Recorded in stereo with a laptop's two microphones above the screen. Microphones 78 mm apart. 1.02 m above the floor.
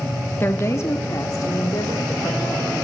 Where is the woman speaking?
25° left (ahead or behind), 1.4 m; by 2.7 s 60° left (ahead or behind), 4.5 m.